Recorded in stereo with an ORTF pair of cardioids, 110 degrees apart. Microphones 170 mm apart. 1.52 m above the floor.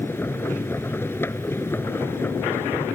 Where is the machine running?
15° left.